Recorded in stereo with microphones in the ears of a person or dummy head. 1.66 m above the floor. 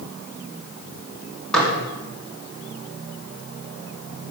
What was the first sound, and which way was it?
Dishes clattering, centre (ahead or behind).